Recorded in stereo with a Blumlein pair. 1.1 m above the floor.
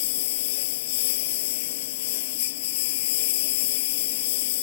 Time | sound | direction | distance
0.0 | a lawn mower | 50° left | ?